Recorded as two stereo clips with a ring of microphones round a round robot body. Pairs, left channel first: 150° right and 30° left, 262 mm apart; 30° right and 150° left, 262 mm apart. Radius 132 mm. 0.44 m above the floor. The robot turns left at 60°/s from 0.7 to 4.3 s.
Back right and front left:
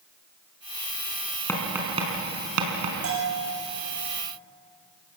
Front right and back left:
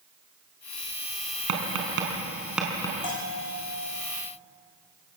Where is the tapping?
130° left, 4.5 m; by 2.9 s 40° left, 4.5 m.